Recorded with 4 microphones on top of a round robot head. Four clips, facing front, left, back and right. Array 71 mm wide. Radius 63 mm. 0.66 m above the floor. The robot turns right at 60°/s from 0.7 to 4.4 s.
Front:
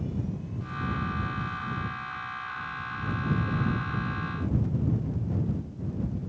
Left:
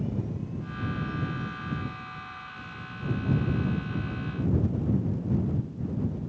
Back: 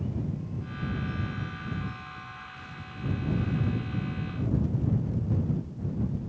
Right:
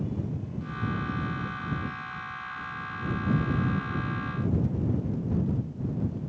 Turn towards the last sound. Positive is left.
No sound to turn to.